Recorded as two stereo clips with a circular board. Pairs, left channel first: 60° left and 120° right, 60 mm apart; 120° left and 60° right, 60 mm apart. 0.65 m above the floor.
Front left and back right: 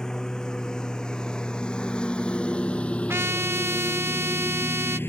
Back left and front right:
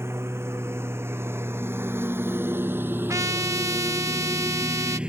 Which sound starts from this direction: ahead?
A lawn mower, at 0.0 s.